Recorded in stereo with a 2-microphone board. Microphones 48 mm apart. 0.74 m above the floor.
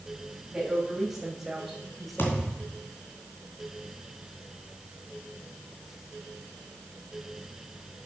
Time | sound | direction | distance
0.5 | a woman speaking | 10° right (ahead or behind) | 4 m
2.2 | a thud | 55° left (ahead or behind) | 2.5 m